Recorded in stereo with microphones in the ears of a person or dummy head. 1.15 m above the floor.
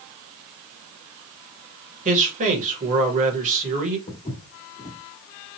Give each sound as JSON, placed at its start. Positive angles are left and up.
{"t": 2.0, "sound": "a man speaking", "side_deg": -40, "distance_m": 1.2}
{"t": 4.1, "sound": "footsteps", "side_deg": 30, "distance_m": 1.5}